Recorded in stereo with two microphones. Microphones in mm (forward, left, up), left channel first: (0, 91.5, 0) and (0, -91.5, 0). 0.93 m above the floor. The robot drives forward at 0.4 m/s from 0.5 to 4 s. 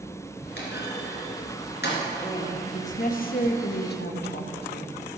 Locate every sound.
0.6 s a clunk: 75° left (ahead or behind), 2.5 m; by 2.0 s 70° left (ahead or behind), 2.5 m
2.2 s a woman speaking: 40° left (ahead or behind), 1.1 m; by 5.0 s 65° left (ahead or behind), 0.8 m